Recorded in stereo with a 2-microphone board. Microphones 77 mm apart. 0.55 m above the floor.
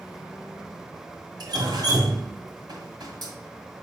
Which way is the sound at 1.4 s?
65° right (ahead or behind).